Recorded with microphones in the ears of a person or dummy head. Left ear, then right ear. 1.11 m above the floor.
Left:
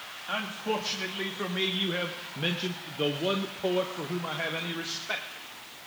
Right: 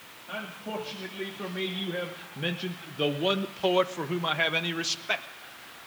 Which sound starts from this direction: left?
A man speaking, at 0.3 s.